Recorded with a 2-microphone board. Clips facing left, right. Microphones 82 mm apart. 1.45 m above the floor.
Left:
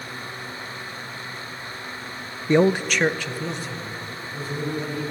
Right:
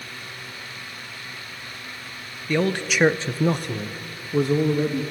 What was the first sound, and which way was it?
A man speaking, 30° left (ahead or behind).